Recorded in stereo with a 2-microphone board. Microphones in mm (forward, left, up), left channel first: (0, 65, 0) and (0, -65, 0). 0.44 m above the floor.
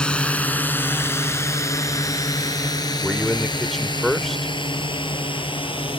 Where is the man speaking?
Centre (ahead or behind).